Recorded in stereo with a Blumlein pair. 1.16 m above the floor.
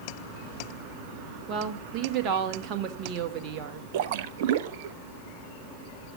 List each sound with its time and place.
1.5 s a woman speaking: 35° right, 1.7 m
3.9 s a splash: 50° right, 0.6 m